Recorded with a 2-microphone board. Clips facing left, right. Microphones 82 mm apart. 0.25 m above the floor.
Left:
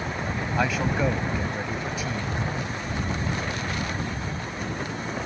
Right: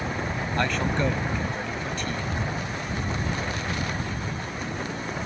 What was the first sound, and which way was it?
A man speaking, 5° left (ahead or behind).